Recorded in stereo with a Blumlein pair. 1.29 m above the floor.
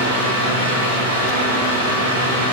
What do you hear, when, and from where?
0.0 s a fan: 55° right, 0.9 m